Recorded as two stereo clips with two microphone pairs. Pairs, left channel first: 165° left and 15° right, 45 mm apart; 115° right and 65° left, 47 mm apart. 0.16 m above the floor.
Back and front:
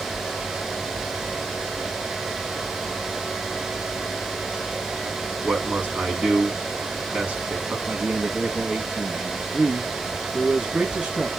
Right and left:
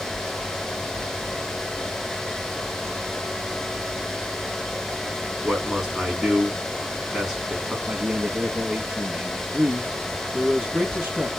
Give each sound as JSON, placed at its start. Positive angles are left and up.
{"t": 5.4, "sound": "a man speaking", "azimuth_deg": -15, "distance_m": 1.9}
{"t": 7.9, "sound": "a man speaking", "azimuth_deg": 30, "distance_m": 1.1}